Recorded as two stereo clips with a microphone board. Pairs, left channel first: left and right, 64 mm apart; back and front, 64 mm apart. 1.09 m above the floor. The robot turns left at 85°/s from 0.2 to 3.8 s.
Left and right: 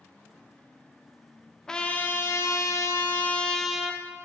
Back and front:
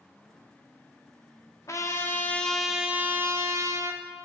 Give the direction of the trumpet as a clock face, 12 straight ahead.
6 o'clock.